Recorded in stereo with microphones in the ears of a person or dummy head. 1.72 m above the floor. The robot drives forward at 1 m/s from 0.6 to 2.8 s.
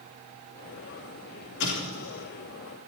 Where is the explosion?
60° left (ahead or behind), 3 m; by 2.2 s 55° left (ahead or behind), 3.5 m.